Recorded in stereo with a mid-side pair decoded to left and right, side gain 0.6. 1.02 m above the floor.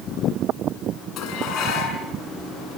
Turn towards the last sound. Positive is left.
turn(degrees=55)